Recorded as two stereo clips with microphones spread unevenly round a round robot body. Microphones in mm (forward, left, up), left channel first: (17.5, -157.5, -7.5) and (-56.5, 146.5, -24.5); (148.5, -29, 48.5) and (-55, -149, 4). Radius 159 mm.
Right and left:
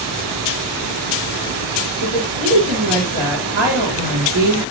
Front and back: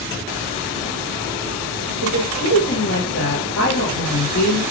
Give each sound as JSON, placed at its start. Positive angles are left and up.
{"t": 2.0, "sound": "a woman speaking", "azimuth_deg": 70, "distance_m": 4.0}